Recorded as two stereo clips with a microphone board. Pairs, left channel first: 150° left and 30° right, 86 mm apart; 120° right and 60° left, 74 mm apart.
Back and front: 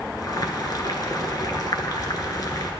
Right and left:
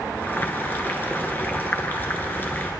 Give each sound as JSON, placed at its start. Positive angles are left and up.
{"t": 0.2, "sound": "boiling", "azimuth_deg": 180, "distance_m": 1.1}